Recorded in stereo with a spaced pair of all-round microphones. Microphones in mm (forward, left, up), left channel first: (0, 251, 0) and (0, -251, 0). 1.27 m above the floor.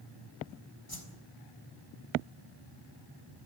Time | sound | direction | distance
0.9 | a whoosh | 45° left (ahead or behind) | 3.5 m